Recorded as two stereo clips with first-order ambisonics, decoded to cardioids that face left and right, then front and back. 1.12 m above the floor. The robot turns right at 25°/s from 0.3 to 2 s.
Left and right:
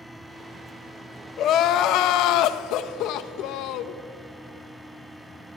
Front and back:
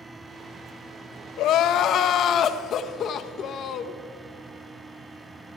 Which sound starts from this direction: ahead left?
Crying, at 1.4 s.